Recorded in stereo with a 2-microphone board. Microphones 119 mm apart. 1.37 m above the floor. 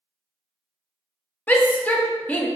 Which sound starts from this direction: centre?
A shout, at 1.5 s.